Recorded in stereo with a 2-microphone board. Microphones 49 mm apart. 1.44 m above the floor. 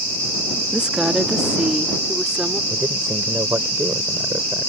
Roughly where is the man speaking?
Right.